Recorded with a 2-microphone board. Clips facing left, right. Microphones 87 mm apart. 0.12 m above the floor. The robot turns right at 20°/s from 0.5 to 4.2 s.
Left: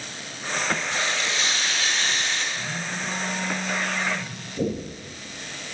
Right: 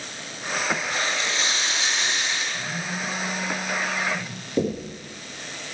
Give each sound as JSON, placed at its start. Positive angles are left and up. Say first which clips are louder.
{"t": 0.9, "sound": "frying", "louder": "even", "azimuth_deg": -45, "distance_m": 4.0}
{"t": 2.5, "sound": "a phone buzzing", "louder": "right 1 dB", "azimuth_deg": -140, "distance_m": 5.0}
{"t": 4.6, "sound": "knocking", "louder": "right 2 dB", "side_deg": -70, "distance_m": 5.0}